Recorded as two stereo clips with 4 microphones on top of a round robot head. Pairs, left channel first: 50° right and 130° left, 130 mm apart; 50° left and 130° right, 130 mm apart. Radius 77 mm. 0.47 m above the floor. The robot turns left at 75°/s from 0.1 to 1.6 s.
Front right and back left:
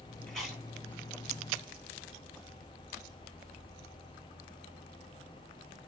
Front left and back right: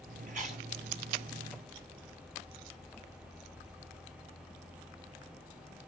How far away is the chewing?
About 3 m.